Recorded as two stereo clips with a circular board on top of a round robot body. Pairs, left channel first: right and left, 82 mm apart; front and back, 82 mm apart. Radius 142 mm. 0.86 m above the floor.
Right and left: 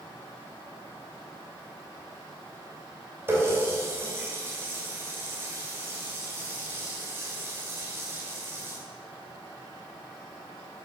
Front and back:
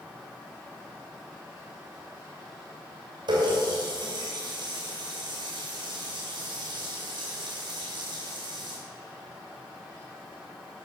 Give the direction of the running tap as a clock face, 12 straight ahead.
7 o'clock.